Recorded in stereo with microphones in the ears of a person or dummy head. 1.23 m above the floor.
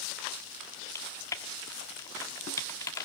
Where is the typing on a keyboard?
20° left (ahead or behind), 1.4 m.